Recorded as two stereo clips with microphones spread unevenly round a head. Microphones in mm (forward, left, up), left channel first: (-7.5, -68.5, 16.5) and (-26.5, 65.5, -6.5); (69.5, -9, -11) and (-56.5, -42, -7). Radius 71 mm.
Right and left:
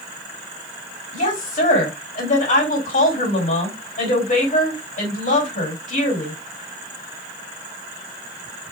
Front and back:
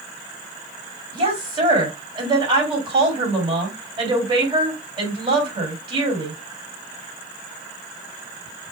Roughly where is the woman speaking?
Behind right.